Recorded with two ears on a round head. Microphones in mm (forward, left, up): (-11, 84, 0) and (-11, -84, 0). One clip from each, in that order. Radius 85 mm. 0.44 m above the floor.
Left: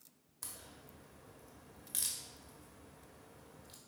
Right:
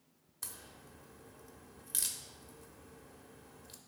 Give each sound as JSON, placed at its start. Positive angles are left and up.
{"t": 0.4, "sound": "a crack", "side_deg": -15, "distance_m": 1.0}